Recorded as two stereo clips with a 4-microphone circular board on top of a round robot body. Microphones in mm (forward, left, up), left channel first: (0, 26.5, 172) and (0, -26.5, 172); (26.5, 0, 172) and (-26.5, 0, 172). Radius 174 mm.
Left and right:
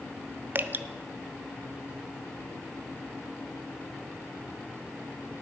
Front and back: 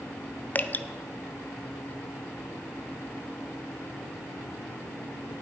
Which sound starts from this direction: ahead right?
Dripping, at 0.6 s.